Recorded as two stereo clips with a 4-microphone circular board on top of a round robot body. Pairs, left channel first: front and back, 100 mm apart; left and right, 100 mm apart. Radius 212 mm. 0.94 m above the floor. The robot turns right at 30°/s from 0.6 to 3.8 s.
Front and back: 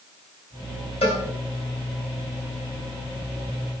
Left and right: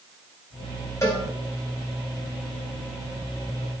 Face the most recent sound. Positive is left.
turn(degrees=110)